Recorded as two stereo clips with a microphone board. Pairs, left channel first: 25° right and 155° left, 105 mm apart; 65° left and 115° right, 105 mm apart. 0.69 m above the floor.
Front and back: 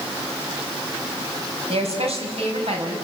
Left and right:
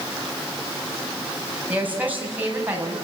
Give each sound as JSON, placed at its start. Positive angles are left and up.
{"t": 1.7, "sound": "a woman speaking", "azimuth_deg": 170, "distance_m": 4.5}